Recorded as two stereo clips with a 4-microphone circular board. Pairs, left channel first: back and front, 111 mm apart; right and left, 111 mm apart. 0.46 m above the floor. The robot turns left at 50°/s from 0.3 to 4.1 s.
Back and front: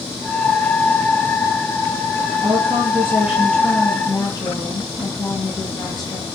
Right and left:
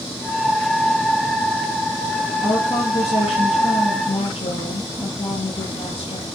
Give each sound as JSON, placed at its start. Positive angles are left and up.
{"t": 2.4, "sound": "a woman speaking", "azimuth_deg": -35, "distance_m": 8.5}